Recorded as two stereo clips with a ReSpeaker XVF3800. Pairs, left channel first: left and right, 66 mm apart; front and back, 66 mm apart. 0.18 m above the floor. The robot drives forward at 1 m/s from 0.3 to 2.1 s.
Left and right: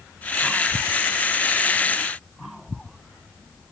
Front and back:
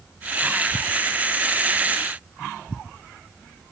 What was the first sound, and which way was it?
Only background noise.